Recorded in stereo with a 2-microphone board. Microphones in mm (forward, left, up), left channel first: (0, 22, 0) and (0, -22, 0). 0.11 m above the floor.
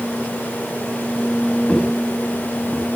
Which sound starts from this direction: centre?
Footsteps, at 1.7 s.